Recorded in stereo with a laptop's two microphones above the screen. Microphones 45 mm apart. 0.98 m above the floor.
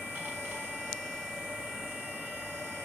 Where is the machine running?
70° right (ahead or behind), 1.0 m.